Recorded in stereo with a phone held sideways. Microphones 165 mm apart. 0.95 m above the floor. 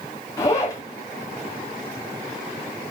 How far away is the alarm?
I don't hear an alarm.